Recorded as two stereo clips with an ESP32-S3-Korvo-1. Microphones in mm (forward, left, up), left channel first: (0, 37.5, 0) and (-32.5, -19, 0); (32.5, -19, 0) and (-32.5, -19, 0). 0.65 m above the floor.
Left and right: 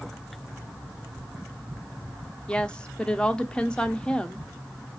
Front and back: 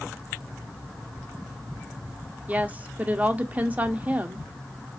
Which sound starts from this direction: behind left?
A woman speaking, at 2.5 s.